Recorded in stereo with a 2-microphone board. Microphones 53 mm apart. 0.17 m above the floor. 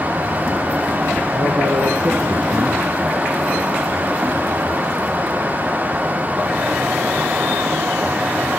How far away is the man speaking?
About 3 m.